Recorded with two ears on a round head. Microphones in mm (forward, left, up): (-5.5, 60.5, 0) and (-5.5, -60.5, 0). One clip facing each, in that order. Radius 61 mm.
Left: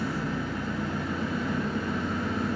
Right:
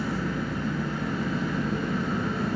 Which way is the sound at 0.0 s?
65° right (ahead or behind).